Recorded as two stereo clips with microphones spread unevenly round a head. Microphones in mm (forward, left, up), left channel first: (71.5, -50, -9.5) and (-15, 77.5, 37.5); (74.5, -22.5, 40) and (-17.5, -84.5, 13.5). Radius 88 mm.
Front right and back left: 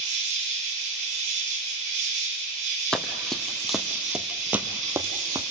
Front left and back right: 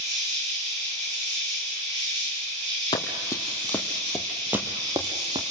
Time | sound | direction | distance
0.0 | an insect | 155° left | 6 m
2.9 | running footsteps | 50° left | 1.2 m